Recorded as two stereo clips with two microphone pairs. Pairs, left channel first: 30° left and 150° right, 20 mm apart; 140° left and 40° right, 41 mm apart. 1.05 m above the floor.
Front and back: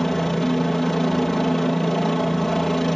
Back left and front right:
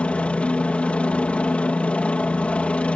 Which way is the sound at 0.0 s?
100° left.